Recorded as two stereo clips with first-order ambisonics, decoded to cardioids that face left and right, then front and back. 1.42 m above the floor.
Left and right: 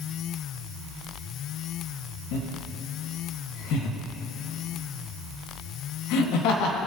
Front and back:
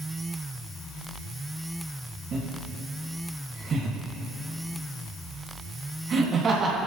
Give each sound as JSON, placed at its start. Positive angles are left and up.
{"t": 2.3, "sound": "laughter", "azimuth_deg": 115, "distance_m": 2.0}